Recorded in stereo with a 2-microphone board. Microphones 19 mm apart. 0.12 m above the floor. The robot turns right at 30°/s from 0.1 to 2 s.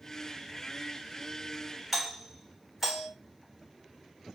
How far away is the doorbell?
About 1.9 m.